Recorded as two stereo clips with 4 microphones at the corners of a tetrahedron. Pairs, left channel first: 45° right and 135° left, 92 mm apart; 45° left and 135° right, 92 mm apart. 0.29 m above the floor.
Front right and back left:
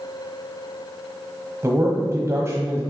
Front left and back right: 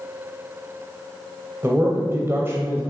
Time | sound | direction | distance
1.6 | a man speaking | 175° left | 1.1 m